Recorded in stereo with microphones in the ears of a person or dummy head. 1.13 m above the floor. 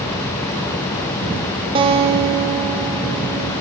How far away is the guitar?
About 1.0 m.